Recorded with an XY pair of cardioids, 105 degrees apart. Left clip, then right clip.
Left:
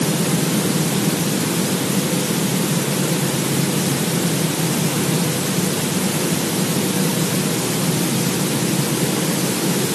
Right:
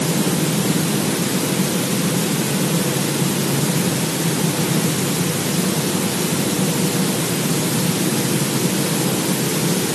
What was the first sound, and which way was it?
Only background noise.